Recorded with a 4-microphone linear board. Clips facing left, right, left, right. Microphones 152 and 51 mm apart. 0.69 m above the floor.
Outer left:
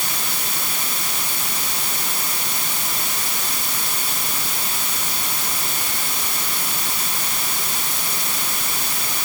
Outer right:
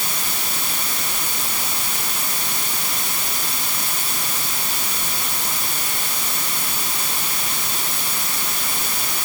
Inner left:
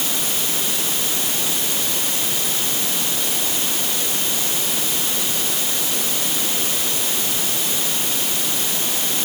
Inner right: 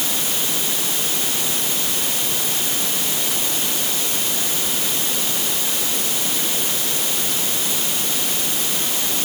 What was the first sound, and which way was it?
Only background noise.